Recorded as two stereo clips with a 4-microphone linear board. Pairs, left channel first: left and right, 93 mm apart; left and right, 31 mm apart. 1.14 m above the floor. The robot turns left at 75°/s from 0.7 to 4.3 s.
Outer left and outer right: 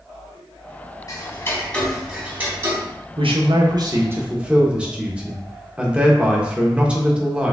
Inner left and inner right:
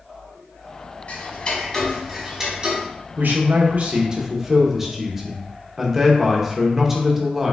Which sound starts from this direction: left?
Ticking, at 1.1 s.